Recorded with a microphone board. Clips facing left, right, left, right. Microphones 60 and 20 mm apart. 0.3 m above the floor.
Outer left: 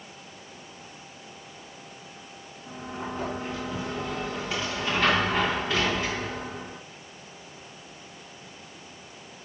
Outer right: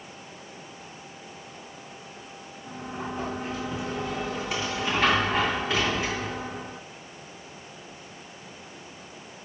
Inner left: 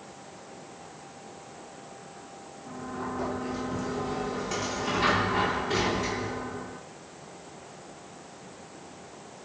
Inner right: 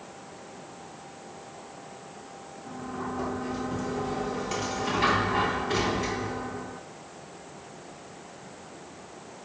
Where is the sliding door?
5° right (ahead or behind), 3.5 m.